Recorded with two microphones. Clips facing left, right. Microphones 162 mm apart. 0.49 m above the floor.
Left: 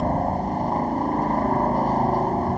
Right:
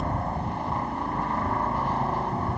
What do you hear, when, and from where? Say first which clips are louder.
0.0 s a helicopter: left 7 dB; 40° left (ahead or behind)